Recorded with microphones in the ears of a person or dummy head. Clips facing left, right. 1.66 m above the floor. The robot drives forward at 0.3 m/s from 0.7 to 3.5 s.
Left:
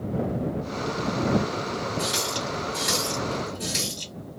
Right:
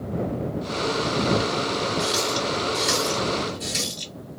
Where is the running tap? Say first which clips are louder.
Right 4 dB; 30° left (ahead or behind), 1.5 m; by 4.1 s 25° left (ahead or behind), 1.9 m.